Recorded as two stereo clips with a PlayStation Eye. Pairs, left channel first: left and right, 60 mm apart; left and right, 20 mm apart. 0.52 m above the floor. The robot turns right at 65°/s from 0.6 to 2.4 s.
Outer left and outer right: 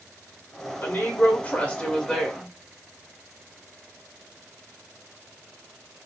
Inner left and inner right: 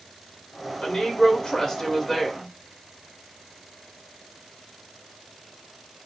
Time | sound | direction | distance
0.8 | a woman speaking | 75° left | 0.9 m